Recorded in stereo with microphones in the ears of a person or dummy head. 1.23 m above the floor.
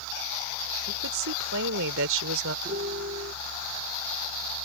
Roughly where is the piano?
Right.